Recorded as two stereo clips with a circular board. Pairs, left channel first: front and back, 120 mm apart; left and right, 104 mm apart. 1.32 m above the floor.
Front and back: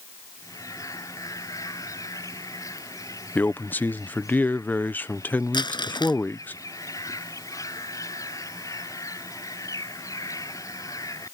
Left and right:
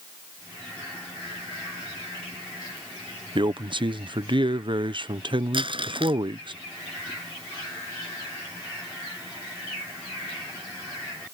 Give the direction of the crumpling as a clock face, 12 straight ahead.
2 o'clock.